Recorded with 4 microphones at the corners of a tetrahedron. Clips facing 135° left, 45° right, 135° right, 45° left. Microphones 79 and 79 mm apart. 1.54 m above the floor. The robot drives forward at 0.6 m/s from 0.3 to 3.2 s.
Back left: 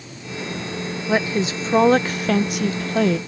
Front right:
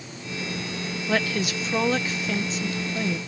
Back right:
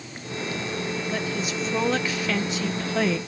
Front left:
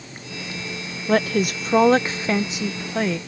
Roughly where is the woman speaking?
Ahead left.